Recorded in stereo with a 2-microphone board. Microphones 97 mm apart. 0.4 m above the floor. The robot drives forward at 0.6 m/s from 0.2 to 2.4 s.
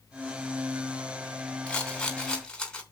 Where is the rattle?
10° left (ahead or behind), 2.5 m; by 2.8 s 5° left (ahead or behind), 3 m.